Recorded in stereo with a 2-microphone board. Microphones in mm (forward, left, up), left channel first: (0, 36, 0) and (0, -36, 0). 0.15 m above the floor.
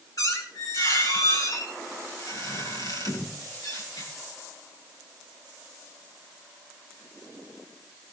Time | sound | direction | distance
0.2 | a squeak | 55° left (ahead or behind) | 6.5 m